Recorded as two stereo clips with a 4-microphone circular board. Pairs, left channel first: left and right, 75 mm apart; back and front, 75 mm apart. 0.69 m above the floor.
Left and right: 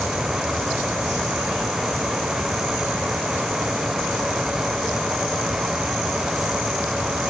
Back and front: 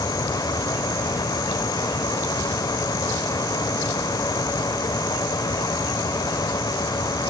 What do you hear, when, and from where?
Only background noise.